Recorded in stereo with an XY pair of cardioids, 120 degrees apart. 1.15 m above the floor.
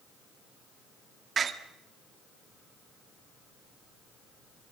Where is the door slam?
40° right, 1.7 m.